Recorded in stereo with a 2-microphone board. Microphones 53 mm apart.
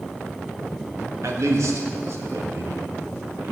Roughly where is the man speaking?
Right.